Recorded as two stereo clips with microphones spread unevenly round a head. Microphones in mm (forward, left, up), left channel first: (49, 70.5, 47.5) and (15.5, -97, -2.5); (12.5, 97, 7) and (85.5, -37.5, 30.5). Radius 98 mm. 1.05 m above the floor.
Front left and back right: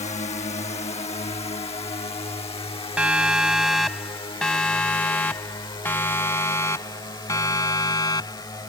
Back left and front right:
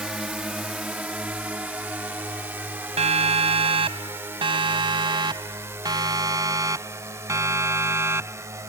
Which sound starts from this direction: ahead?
A siren, at 3.0 s.